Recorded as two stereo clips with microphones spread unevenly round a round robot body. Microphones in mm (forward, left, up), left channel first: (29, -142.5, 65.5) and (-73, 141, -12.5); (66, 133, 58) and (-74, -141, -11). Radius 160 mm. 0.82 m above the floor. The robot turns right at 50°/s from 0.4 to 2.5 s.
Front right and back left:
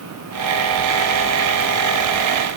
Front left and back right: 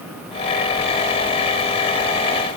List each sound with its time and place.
Only background noise.